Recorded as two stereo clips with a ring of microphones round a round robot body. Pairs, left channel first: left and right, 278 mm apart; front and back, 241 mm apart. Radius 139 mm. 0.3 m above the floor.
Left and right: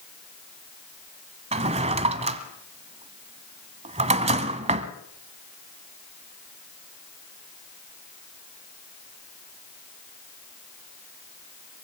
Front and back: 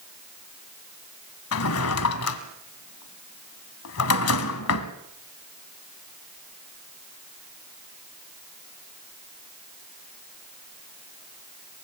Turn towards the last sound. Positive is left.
turn(degrees=-25)